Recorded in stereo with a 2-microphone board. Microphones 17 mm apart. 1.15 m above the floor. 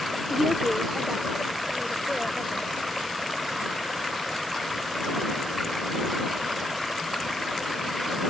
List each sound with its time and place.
0.3 s a woman speaking: 20° right (ahead or behind); by 2.7 s 40° right (ahead or behind)